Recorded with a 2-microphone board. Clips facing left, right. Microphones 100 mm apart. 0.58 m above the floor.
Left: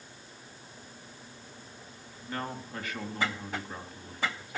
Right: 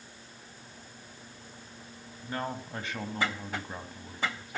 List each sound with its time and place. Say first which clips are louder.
2.2 s a man speaking: right 2 dB; 25° right (ahead or behind), 3 m